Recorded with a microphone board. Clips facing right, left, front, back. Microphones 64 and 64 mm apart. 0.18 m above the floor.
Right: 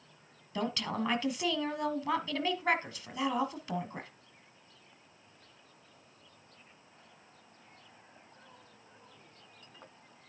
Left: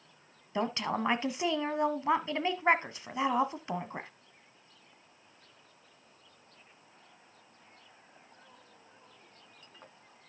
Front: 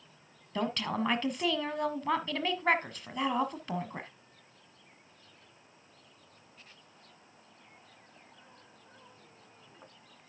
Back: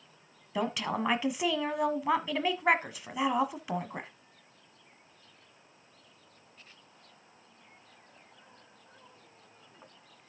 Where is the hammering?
I don't hear hammering.